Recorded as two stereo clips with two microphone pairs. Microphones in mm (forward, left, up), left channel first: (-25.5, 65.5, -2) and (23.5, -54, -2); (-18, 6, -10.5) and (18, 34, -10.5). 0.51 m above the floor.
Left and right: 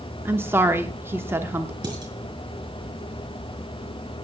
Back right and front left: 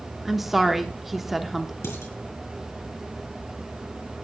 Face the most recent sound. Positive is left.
turn(degrees=-125)